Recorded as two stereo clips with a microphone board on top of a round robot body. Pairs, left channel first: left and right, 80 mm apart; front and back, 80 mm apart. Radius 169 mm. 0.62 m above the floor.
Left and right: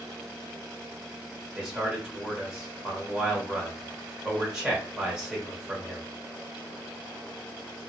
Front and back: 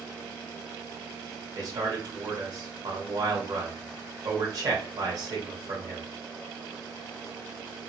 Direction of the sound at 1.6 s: 165° right.